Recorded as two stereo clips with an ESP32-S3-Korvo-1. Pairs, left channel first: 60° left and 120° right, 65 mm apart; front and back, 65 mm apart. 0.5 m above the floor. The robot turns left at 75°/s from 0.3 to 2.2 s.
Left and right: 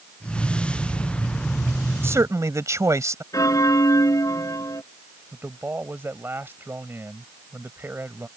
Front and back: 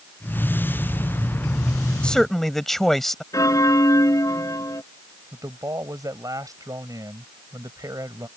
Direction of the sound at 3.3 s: 30° left.